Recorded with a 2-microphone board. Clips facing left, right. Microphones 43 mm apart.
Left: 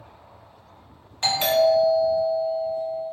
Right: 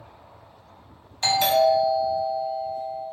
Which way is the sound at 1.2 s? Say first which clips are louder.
Even; 25° left (ahead or behind).